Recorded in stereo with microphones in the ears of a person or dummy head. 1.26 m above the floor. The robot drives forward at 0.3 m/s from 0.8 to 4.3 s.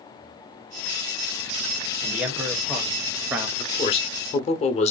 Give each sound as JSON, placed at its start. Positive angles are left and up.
{"t": 2.0, "sound": "a man speaking", "side_deg": -10, "distance_m": 1.0}
{"t": 3.6, "sound": "a man speaking", "side_deg": 25, "distance_m": 0.8}